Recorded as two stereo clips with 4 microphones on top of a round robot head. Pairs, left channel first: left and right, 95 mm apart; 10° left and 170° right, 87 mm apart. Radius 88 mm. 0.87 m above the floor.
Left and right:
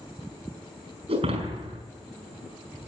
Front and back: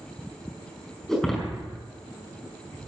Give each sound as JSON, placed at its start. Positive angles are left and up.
{"t": 1.1, "sound": "breaking glass", "azimuth_deg": -80, "distance_m": 5.0}